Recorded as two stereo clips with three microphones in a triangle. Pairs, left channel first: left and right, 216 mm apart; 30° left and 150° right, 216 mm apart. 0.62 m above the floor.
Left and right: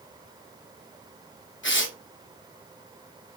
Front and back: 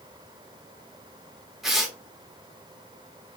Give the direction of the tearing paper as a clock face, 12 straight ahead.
8 o'clock.